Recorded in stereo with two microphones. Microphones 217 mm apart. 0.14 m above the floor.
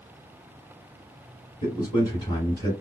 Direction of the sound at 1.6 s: 20° left (ahead or behind).